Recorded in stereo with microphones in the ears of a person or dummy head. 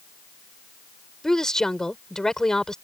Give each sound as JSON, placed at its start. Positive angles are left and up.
{"t": 1.2, "sound": "a woman speaking", "side_deg": 5}